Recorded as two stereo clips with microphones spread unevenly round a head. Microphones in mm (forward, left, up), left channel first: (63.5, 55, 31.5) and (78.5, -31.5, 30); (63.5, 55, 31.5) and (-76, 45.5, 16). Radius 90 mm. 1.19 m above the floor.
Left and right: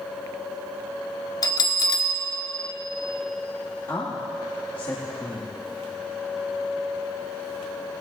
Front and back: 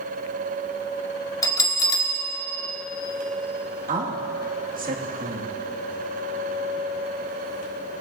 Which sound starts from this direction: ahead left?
A bell, at 1.4 s.